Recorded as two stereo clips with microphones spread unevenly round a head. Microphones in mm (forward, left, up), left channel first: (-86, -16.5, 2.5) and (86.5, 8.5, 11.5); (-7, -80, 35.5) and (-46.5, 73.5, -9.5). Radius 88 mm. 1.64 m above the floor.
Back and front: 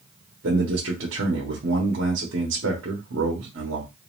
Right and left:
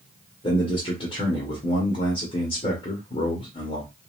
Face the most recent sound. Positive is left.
turn(degrees=-10)